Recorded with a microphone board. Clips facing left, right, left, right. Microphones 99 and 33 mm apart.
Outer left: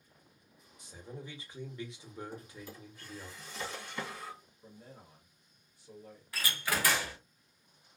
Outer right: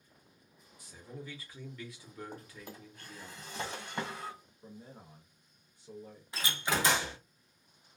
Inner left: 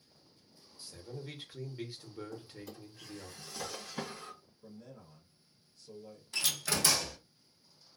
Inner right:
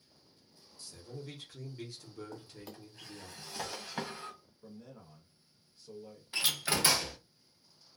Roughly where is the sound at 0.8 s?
Left.